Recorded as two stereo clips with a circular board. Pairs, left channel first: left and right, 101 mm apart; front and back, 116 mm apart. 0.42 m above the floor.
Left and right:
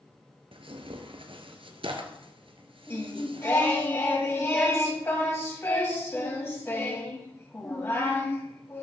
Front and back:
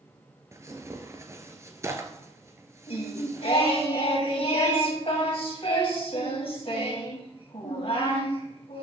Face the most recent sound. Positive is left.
turn(degrees=30)